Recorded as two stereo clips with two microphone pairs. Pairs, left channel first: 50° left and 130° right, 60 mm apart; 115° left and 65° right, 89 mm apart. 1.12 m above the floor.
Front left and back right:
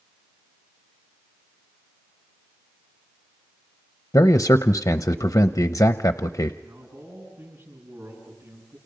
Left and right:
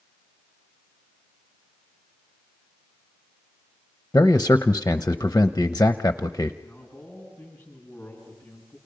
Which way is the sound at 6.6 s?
170° right.